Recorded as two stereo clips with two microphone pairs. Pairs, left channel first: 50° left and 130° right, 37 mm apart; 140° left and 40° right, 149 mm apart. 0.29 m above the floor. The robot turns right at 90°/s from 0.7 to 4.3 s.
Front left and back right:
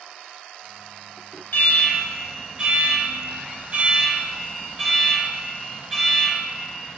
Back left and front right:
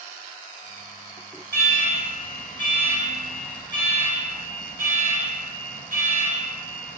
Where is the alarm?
60° left, 2.5 m; by 7.0 s 50° right, 2.5 m.